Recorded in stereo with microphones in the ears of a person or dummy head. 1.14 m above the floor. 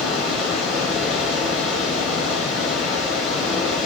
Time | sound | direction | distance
0.0 | running water | centre (ahead or behind) | 8.5 m